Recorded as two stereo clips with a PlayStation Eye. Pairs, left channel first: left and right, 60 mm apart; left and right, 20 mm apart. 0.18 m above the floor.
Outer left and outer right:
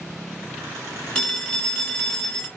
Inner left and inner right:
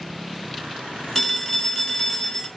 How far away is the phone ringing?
About 0.9 m.